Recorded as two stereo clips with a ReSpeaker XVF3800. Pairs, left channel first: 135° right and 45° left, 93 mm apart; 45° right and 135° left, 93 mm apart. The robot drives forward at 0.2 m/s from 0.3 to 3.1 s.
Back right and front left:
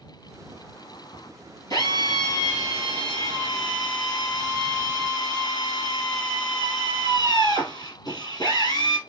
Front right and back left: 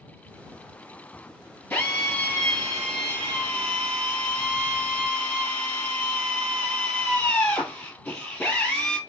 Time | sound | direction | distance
1.7 | a drill | 115° right | 2.5 m